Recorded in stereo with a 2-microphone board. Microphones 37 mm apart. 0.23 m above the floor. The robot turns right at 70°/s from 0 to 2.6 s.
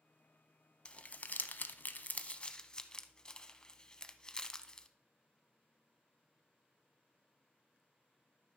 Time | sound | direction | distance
0.8 | crumpling | 25° left (ahead or behind) | 0.6 m